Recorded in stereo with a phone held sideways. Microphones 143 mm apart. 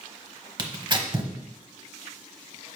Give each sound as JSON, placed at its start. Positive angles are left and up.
{"t": 0.6, "sound": "tearing paper", "side_deg": -35, "distance_m": 1.0}